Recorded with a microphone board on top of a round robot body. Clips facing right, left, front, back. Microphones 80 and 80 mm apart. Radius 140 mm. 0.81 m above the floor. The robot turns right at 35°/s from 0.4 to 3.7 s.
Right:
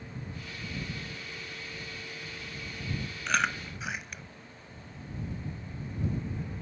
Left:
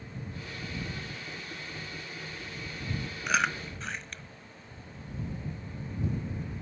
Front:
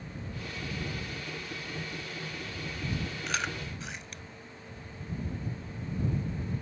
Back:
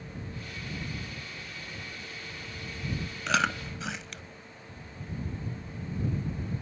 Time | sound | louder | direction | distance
3.3 | chewing | left 1 dB, back 10 dB | 175° left | ?